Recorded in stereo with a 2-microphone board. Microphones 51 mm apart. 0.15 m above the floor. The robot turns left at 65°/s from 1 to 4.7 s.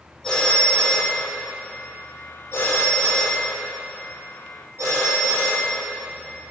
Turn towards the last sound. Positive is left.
turn(degrees=-70)  # may be behind; listen again after turning